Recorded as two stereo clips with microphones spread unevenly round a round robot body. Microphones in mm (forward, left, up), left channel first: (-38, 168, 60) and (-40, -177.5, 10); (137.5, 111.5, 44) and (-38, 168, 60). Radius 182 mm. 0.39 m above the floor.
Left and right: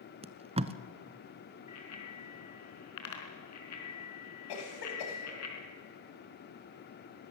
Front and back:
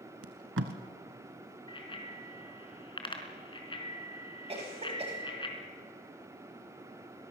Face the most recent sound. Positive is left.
turn(degrees=105)